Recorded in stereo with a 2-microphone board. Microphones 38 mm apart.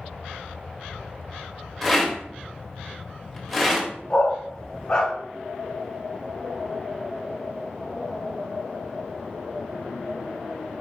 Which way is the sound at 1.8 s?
5° left (ahead or behind).